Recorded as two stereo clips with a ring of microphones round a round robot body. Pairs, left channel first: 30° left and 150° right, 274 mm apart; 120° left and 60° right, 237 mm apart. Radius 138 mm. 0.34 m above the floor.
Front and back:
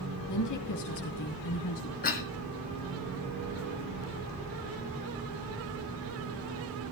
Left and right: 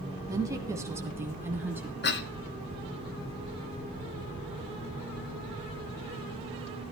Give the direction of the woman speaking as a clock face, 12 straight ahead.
11 o'clock.